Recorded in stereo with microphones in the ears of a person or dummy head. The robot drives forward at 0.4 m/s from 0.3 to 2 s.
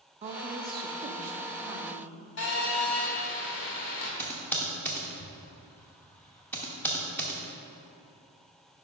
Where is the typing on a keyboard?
10° left (ahead or behind), 0.7 m.